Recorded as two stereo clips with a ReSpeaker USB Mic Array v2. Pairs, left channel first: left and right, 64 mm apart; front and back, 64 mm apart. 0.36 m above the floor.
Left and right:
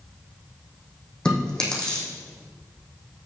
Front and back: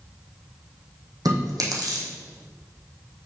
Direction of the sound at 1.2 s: 165° left.